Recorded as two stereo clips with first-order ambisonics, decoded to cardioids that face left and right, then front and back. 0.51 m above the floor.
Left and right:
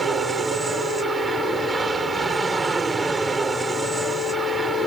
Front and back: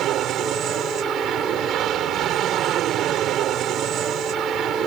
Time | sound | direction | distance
0.0 | an aircraft | 160° right | ?